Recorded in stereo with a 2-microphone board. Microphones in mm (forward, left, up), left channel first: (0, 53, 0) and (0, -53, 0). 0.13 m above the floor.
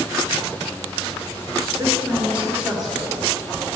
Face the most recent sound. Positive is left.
turn(degrees=5)  # may be behind; listen again after turning